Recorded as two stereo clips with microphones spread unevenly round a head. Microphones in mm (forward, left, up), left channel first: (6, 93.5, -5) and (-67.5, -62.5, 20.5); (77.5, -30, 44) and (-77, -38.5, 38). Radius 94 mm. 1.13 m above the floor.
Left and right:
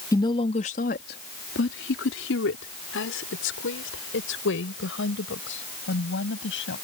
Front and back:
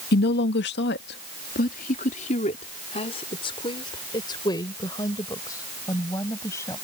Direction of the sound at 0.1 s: 5° right.